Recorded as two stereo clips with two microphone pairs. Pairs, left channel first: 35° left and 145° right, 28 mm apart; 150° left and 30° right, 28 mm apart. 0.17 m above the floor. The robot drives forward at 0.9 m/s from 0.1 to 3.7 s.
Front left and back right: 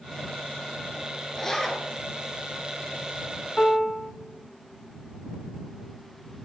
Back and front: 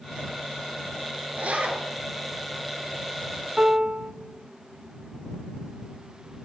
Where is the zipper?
35° right, 3 m; by 1.8 s 45° right, 2.5 m.